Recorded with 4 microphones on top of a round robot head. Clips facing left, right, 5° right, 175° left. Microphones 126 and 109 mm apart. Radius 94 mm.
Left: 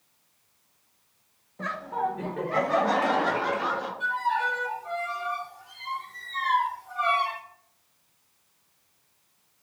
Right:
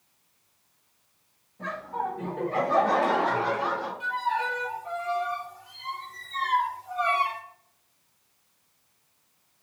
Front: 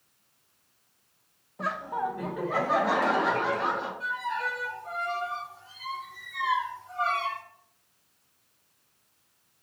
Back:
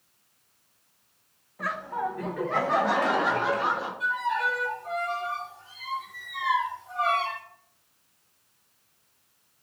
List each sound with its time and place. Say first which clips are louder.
1.6 s laughter: left 2 dB, even; 60° left, 0.7 m; by 3.9 s 90° left, 1.8 m
4.0 s a violin: left 2 dB, back 4 dB; 135° right, 0.9 m